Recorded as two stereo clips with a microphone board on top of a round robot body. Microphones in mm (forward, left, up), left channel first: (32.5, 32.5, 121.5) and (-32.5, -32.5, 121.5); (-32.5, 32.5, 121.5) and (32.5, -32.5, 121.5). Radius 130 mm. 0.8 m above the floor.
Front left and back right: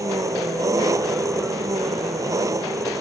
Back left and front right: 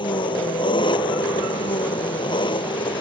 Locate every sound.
0.0 s an engine running: 170° left